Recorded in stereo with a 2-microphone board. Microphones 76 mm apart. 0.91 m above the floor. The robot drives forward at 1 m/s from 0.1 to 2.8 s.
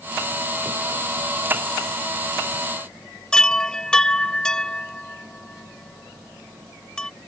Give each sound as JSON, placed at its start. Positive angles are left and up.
{"t": 3.3, "sound": "a chime", "side_deg": 10}